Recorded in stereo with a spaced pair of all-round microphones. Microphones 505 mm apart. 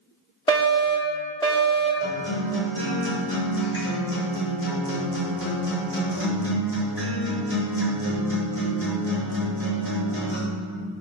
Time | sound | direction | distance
0.5 | a fire alarm | 10° left (ahead or behind) | 2.5 m
2.0 | a guitar | 75° left (ahead or behind) | 4.5 m